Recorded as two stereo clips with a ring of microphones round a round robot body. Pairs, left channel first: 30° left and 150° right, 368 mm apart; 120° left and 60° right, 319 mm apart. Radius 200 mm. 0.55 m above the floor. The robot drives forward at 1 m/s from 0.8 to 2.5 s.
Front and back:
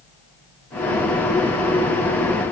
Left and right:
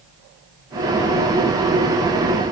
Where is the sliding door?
I don't hear a sliding door.